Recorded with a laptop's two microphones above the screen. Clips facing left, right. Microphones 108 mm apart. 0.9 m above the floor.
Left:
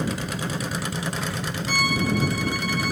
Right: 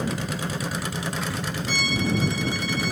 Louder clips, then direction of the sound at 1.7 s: Left 2 dB; 50° left (ahead or behind).